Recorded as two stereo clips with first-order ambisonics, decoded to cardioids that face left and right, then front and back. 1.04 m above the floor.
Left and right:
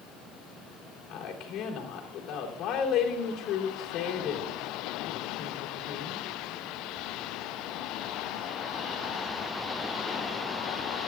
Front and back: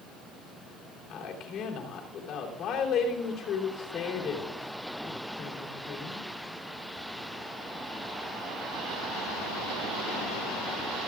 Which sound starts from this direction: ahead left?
A woman speaking, at 1.1 s.